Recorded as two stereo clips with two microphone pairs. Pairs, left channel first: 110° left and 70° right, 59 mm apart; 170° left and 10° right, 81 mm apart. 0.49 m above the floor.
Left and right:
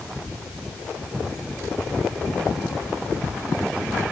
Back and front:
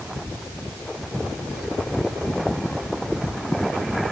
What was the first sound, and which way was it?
Only background noise.